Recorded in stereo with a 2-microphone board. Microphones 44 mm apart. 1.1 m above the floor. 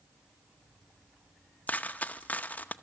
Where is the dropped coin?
30° left (ahead or behind), 0.7 m.